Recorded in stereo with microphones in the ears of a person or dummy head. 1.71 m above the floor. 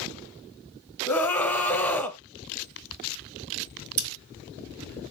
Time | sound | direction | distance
1.1 | a scream | 15° left (ahead or behind) | 0.6 m
4.0 | scissors | 70° right (ahead or behind) | 1.0 m